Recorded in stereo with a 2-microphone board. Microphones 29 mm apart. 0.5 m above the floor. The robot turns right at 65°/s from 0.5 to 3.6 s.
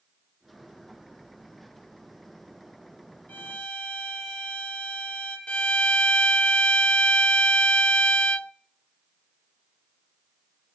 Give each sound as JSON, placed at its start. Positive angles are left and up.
{"t": 3.3, "sound": "a violin", "side_deg": 65, "distance_m": 4.0}
{"t": 5.5, "sound": "a violin", "side_deg": 45, "distance_m": 0.5}